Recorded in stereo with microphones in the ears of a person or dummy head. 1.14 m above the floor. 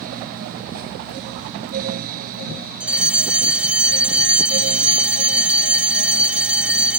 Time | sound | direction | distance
2.8 | a fire alarm | centre (ahead or behind) | ?